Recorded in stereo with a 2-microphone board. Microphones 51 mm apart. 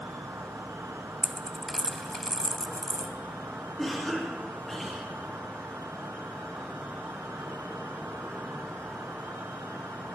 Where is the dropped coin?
10° left (ahead or behind), 0.6 m.